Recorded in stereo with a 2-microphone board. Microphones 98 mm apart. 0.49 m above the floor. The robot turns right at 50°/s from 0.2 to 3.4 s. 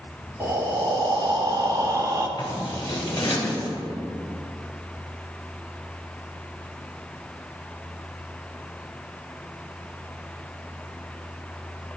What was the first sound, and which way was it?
Breathing, 140° right.